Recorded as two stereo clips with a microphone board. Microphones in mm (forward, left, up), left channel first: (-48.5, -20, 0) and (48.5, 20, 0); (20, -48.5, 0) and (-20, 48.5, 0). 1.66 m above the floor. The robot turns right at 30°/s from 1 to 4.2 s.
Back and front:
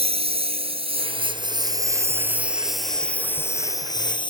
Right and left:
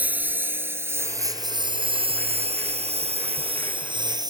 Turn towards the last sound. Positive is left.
turn(degrees=160)